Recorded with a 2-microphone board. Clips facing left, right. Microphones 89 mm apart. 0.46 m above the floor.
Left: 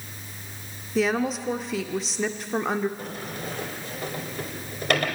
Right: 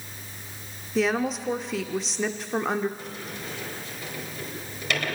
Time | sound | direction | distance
0.9 | a woman speaking | centre (ahead or behind) | 0.7 m
3.0 | a sliding door | 50° left (ahead or behind) | 2.5 m